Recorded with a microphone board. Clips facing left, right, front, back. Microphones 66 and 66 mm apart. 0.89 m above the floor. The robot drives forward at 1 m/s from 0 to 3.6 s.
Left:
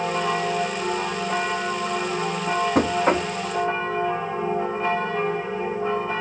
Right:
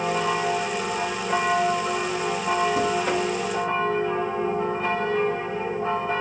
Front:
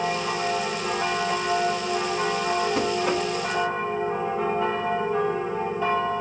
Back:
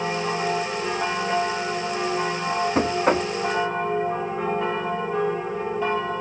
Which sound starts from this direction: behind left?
Knocking, at 2.8 s.